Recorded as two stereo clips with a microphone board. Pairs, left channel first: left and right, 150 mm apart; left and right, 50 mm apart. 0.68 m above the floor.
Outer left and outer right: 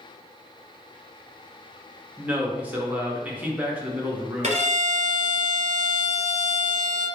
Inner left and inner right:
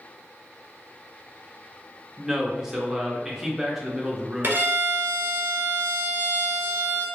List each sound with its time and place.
2.2 s a man speaking: 10° right (ahead or behind), 0.7 m
4.4 s a violin: 45° right (ahead or behind), 1.5 m